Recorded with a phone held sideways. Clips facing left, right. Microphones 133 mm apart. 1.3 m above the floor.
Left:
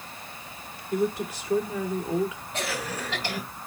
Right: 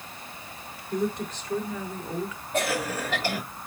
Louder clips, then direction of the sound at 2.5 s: Right 7 dB; 50° right (ahead or behind).